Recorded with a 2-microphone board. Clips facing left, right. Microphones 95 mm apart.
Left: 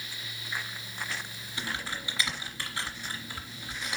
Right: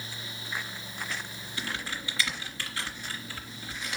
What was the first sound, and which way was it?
Typing on a keyboard, 20° left (ahead or behind).